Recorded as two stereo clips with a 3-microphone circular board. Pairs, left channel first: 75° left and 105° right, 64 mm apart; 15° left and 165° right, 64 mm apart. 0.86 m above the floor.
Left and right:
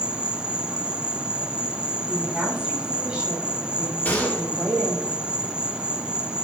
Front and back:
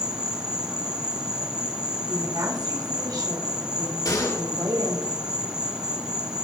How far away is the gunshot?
About 6 m.